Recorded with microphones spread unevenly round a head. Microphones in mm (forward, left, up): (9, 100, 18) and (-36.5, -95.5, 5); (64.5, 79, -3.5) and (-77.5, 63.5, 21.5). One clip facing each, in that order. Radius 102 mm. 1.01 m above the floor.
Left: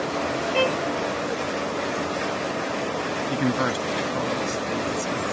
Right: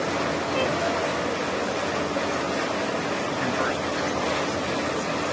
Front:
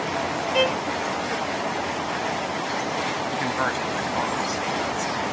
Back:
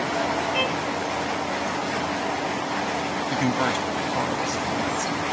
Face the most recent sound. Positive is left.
turn(degrees=120)